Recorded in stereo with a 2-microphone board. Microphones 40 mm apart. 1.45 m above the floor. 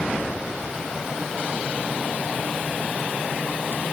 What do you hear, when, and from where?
Only background noise.